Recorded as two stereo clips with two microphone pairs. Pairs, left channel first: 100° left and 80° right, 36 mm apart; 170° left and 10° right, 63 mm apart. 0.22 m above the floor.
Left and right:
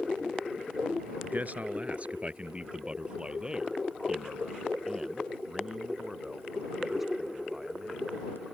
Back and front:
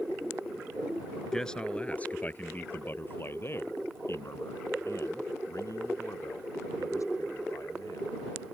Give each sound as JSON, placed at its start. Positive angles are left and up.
{"t": 1.2, "sound": "a man speaking", "azimuth_deg": -110}